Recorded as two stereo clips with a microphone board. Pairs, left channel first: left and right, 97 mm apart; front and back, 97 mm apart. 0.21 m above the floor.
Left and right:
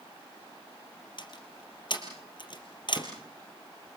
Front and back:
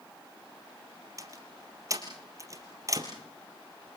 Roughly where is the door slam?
Behind left.